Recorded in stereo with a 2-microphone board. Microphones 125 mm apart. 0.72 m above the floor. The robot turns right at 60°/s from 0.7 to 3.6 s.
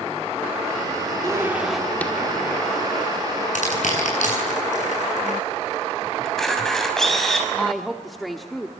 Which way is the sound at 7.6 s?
Centre (ahead or behind).